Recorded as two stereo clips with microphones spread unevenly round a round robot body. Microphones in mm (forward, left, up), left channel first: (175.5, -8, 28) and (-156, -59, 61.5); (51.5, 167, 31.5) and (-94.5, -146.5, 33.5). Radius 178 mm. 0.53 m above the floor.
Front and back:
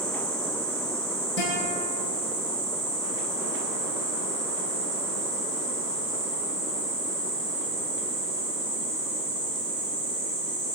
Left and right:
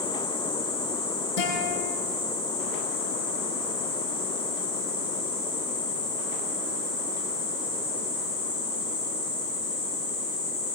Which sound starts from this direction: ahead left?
A guitar, at 1.4 s.